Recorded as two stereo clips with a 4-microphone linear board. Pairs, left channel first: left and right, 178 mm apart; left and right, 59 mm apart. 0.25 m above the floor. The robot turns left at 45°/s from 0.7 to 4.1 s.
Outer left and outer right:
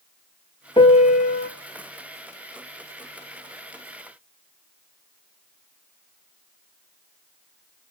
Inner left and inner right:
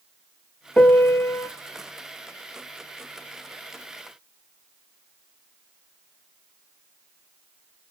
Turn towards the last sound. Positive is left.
turn(degrees=0)